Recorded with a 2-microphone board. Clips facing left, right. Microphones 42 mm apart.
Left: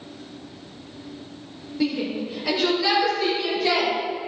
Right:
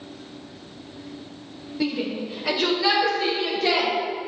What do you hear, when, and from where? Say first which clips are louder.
1.8 s a shout: left 1 dB; 5° right (ahead or behind), 0.9 m; by 3.9 s 15° right (ahead or behind), 1.8 m